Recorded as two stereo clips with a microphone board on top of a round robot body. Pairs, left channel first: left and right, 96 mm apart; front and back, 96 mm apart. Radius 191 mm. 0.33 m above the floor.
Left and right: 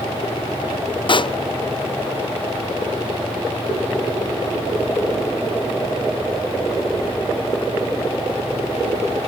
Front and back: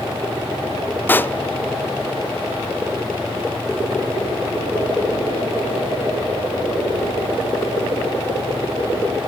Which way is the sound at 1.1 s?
70° left.